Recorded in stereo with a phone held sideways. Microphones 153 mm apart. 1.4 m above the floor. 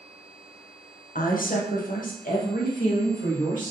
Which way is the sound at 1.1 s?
75° left (ahead or behind).